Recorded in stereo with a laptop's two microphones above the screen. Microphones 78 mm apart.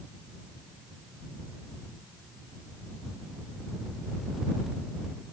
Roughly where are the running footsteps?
I don't hear running footsteps.